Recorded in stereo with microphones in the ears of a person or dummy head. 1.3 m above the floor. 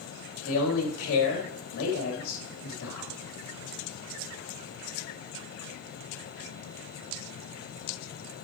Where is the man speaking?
75° left (ahead or behind), 2.5 m.